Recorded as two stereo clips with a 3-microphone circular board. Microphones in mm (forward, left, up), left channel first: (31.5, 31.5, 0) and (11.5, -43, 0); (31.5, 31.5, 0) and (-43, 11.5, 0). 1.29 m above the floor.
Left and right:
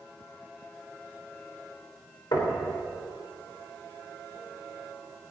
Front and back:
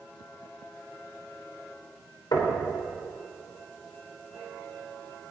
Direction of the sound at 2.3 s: 45° left.